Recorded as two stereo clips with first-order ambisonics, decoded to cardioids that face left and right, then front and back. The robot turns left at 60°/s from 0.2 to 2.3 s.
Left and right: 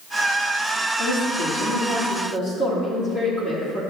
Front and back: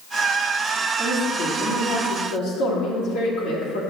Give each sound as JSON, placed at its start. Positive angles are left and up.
{"t": 1.0, "sound": "a woman speaking", "azimuth_deg": 110, "distance_m": 1.9}